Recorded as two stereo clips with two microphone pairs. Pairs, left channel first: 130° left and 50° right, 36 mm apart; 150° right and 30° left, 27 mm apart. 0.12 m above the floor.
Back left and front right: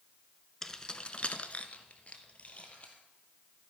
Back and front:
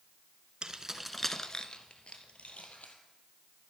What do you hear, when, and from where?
0.6 s keys jangling: 60° left, 1.1 m; by 2.9 s 175° right, 2.5 m